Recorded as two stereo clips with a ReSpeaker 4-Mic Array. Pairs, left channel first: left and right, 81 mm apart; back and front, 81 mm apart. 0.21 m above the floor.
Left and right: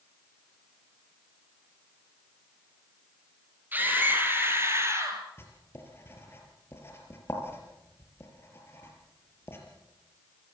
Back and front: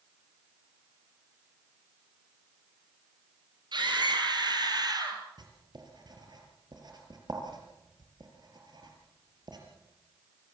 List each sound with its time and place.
3.7 s a scream: 20° right, 5 m; by 5.2 s 35° right, 4.5 m
5.4 s writing: 30° left, 4.5 m